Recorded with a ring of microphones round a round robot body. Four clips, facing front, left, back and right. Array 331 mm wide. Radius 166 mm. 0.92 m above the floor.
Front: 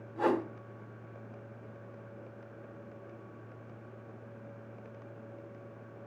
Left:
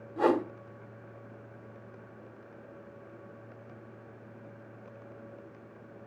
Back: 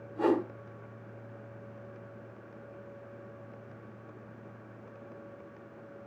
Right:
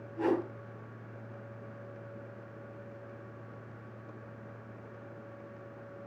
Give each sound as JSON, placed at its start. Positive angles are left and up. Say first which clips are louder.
{"t": 0.2, "sound": "a whoosh", "louder": "left 4 dB, back 2 dB", "azimuth_deg": 90, "distance_m": 1.9}